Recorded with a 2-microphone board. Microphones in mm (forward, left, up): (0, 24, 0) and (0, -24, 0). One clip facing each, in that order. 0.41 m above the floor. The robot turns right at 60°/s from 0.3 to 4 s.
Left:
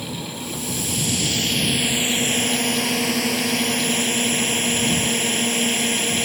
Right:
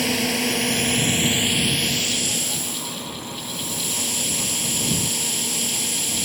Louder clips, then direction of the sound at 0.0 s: Right 8 dB; 85° right.